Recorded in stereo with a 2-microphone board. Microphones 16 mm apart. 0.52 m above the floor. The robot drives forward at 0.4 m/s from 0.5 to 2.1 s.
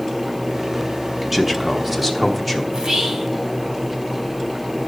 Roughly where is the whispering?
Right.